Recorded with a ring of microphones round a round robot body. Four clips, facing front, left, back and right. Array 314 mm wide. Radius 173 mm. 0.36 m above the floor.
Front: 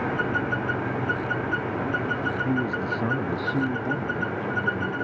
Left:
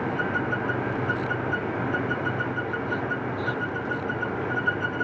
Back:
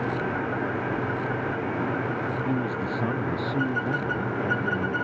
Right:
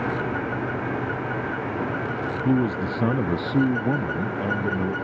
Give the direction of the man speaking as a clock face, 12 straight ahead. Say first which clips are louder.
Right 6 dB, front 2 dB; 3 o'clock.